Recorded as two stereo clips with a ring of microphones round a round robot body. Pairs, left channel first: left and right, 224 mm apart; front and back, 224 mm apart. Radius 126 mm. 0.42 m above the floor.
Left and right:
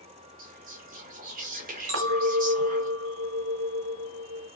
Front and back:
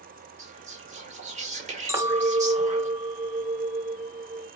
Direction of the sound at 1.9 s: 105° right.